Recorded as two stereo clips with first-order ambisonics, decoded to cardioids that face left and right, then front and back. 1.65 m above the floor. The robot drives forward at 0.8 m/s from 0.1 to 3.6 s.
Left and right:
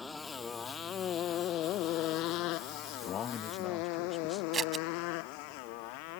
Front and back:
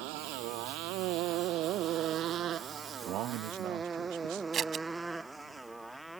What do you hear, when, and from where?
0.0 s a motorcycle: 165° left; by 6.2 s 90° left
3.0 s a man speaking: 140° left; by 4.4 s 160° left
4.5 s scissors: 145° right